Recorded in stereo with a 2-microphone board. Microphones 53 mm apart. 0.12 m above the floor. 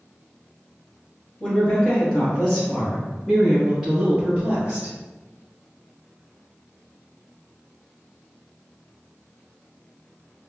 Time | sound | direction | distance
1.4 | a woman speaking | 20° left (ahead or behind) | 1.9 m